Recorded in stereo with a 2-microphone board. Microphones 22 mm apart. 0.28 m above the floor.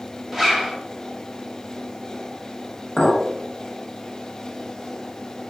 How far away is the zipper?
About 1.0 m.